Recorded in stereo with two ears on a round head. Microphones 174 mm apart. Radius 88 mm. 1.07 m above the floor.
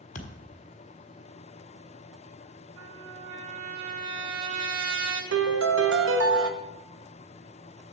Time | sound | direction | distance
0.1 | a thud | 50° left (ahead or behind) | 1.4 m
2.8 | a trumpet | 70° right (ahead or behind) | 2.5 m
5.3 | a piano | 70° right (ahead or behind) | 1.1 m